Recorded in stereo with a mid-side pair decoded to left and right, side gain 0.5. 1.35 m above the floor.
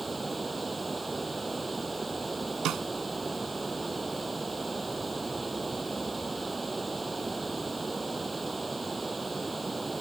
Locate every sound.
0.0 s running water: 20° right
2.6 s a snare drum: 70° right